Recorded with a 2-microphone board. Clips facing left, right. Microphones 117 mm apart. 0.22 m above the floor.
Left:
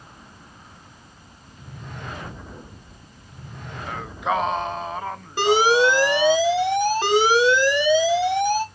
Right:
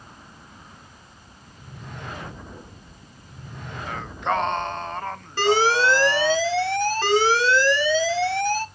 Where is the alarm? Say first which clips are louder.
Left 2 dB; 15° left (ahead or behind), 1.0 m.